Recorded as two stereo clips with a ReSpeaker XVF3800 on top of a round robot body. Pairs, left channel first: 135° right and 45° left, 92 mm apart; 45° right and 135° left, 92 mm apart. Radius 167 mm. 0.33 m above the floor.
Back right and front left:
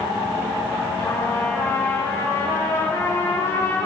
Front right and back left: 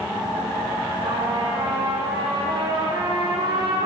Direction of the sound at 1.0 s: 165° left.